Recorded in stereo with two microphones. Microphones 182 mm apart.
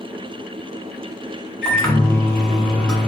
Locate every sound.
1.6 s a microwave: 5° left (ahead or behind), 0.9 m